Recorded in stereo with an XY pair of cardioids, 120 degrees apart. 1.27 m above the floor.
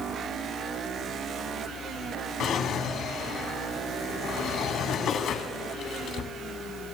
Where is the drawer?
65° left, 2 m.